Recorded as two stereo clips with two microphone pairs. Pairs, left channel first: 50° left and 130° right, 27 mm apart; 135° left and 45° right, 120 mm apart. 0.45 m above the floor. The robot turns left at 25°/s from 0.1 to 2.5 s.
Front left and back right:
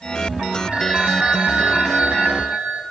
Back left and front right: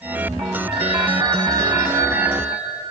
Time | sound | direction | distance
0.7 | a phone ringing | 80° right | 2.5 m